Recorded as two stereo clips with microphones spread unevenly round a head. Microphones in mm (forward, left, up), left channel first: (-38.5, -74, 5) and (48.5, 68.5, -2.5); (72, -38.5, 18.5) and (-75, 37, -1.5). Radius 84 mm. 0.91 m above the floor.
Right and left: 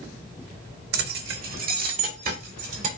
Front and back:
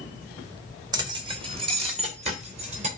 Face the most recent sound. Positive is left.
turn(degrees=105)